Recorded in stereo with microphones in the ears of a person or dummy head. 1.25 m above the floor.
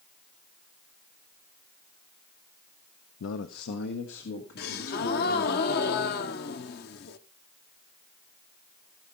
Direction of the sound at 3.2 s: 75° left (ahead or behind).